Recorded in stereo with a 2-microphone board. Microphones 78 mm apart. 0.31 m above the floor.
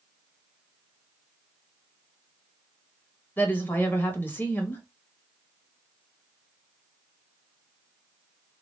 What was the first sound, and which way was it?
A woman speaking, 25° left (ahead or behind).